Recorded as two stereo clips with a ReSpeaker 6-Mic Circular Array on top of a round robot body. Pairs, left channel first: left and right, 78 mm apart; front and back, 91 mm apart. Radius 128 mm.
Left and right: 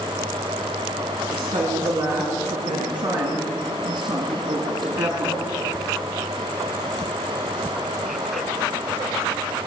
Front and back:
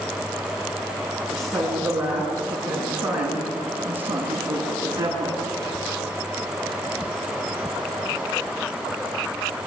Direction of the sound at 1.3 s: 90° right.